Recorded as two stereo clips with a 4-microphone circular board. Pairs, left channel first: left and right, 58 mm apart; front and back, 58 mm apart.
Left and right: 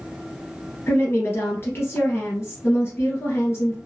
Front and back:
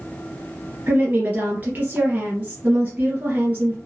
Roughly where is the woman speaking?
Behind left.